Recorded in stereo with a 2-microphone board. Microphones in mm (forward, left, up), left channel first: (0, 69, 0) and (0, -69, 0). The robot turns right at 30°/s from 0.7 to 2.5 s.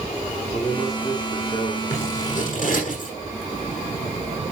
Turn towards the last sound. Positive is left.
turn(degrees=65)  # may be behind; listen again after turning